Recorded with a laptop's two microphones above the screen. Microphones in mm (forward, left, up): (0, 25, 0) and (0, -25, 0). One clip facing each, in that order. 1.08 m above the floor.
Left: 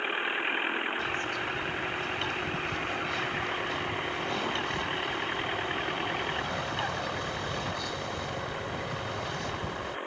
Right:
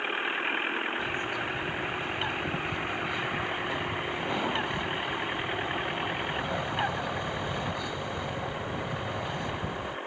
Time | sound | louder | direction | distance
1.0 | a bird | even | 20° right (ahead or behind) | ?